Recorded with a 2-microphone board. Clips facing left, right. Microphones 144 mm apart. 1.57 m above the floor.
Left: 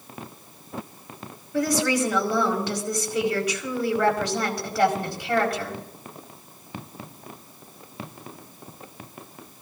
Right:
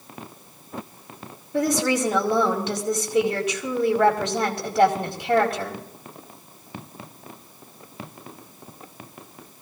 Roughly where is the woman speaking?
Right.